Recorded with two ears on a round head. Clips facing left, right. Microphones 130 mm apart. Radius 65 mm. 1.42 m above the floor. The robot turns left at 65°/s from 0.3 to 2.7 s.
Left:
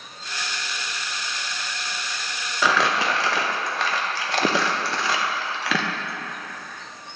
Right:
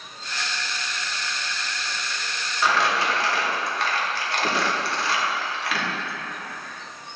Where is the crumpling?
60° left (ahead or behind), 0.8 m.